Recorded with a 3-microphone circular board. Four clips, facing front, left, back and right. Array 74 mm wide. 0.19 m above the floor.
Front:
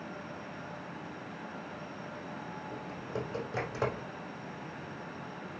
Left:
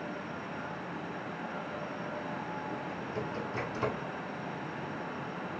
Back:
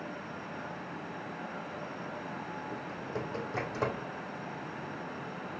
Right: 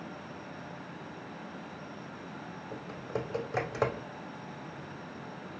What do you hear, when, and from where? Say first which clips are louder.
2.7 s typing on a keyboard: left 1 dB, front 1 dB; 90° right, 3 m